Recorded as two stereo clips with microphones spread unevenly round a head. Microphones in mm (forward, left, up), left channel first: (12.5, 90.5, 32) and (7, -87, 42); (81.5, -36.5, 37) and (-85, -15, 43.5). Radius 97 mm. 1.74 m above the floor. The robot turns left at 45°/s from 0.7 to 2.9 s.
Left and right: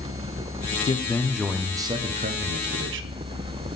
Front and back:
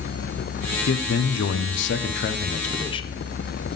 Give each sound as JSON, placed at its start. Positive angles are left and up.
{"t": 0.9, "sound": "a man speaking", "azimuth_deg": 20, "distance_m": 0.6}